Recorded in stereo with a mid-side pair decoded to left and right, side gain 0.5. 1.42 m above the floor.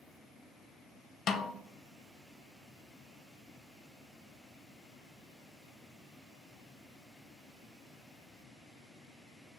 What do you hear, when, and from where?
1.3 s a snare drum: 55° left, 0.6 m